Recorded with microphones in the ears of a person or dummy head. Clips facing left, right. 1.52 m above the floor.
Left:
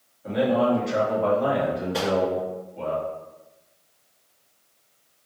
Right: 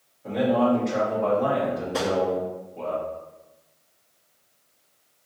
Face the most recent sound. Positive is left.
turn(degrees=0)  # may be behind; listen again after turning